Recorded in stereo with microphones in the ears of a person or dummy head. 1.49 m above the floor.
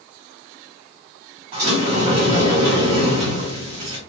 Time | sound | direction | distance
1.5 | a sliding door | 30° right (ahead or behind) | 1.9 m